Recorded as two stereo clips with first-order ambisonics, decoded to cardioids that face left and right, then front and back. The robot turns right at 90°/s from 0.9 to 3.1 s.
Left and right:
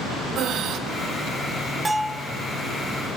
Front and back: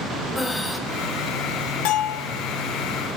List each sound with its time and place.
0.3 s breathing: 85° right, 1.3 m
1.9 s a bell: 15° right, 1.1 m; by 2.3 s 25° left, 1.1 m